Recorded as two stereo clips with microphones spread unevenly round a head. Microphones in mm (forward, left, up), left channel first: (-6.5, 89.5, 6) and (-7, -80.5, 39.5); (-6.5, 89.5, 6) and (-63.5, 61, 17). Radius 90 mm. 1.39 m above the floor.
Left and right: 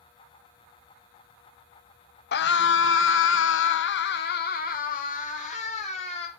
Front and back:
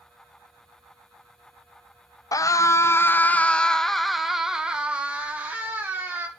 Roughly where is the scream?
Ahead left.